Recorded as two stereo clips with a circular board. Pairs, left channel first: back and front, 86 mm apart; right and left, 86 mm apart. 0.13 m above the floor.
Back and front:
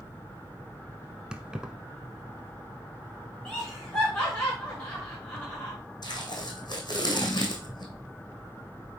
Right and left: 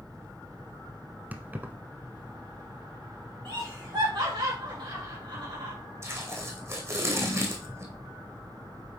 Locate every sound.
1.3 s keys jangling: 60° left, 0.9 m
3.5 s laughter: 100° left, 5 m
6.0 s tape being pulled: 145° left, 2 m